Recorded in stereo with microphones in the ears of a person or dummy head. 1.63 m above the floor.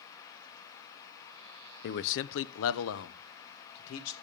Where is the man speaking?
55° left (ahead or behind), 0.6 m; by 4.1 s 80° left, 1.8 m.